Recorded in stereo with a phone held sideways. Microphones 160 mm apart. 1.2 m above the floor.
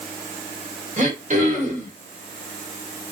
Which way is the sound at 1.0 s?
50° right (ahead or behind).